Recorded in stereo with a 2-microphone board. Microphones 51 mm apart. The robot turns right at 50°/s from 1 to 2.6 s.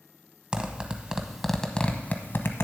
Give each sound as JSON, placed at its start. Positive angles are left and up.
{"t": 0.5, "sound": "a zipper", "side_deg": -20, "distance_m": 0.8}